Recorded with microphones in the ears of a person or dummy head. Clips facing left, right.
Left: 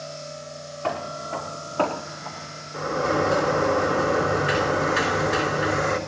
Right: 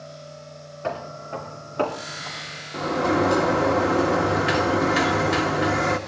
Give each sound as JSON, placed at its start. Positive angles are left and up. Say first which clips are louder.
{"t": 0.8, "sound": "footsteps", "louder": "left 1 dB", "side_deg": -30, "distance_m": 4.0}
{"t": 2.7, "sound": "a sliding door", "louder": "right 2 dB", "side_deg": -60, "distance_m": 1.6}